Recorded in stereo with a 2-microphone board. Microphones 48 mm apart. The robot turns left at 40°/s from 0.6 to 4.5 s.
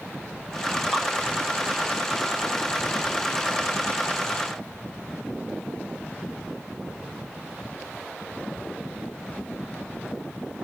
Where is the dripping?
10° left (ahead or behind), 1.4 m.